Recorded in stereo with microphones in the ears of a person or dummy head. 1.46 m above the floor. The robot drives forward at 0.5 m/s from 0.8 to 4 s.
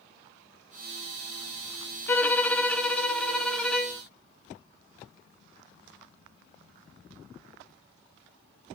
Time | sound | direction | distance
2.1 | a violin | 10° left (ahead or behind) | 0.5 m